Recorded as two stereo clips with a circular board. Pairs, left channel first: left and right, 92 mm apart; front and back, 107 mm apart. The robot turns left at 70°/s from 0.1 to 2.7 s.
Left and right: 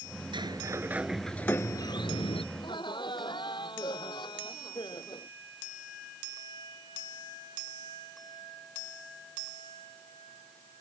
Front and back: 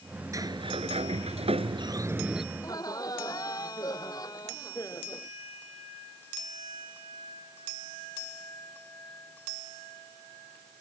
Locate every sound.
0.3 s a sliding door: 120° right; by 2.4 s 90° left
2.5 s laughter: 65° left; by 5.3 s 55° left